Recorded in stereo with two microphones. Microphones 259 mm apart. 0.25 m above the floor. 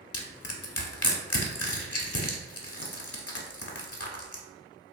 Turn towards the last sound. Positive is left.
turn(degrees=60)  # may be behind; listen again after turning